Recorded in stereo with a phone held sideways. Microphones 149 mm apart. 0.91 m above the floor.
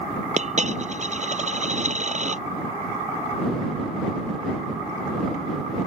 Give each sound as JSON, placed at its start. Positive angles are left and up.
{"t": 0.4, "sound": "a dropped coin", "side_deg": -50}